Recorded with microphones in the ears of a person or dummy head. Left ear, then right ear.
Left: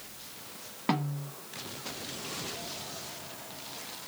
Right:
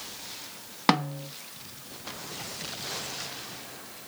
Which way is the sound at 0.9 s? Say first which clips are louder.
Right 7 dB; 55° right (ahead or behind).